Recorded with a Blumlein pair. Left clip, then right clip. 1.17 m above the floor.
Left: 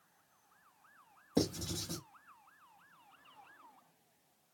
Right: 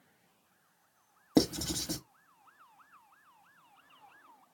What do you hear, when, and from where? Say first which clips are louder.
1.4 s writing: right 6 dB; 35° right, 0.8 m